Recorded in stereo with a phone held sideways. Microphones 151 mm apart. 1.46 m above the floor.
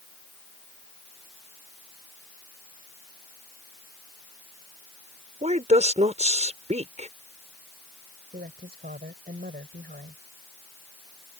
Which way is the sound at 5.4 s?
45° right (ahead or behind).